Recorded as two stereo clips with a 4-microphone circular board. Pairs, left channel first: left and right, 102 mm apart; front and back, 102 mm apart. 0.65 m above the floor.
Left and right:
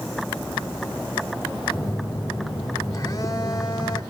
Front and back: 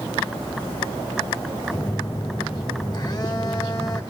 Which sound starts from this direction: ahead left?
A phone buzzing, at 1.7 s.